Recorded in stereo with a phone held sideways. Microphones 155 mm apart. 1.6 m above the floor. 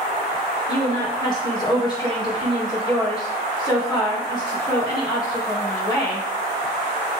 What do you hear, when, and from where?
0.7 s a woman speaking: 25° left (ahead or behind), 3 m